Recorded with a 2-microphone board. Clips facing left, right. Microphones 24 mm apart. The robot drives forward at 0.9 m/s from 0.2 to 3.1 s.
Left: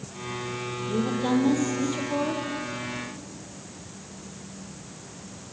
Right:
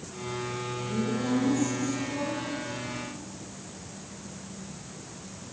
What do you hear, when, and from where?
0.9 s a woman speaking: 45° left (ahead or behind), 5 m; by 2.4 s 55° left (ahead or behind), 4 m